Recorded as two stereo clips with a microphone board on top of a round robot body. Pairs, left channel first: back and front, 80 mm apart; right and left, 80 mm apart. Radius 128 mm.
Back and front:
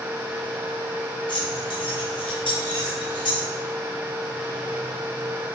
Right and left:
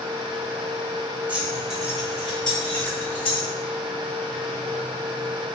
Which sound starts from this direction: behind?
Keys jangling, at 1.3 s.